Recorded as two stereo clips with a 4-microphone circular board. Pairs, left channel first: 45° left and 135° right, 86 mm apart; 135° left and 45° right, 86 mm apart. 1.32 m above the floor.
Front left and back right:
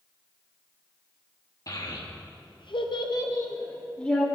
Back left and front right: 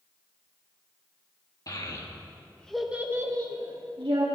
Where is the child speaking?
90° left, 1.6 m; by 4.2 s 35° right, 1.6 m.